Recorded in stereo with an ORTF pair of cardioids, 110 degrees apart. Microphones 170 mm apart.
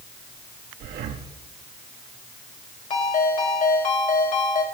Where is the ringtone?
45° left, 4 m.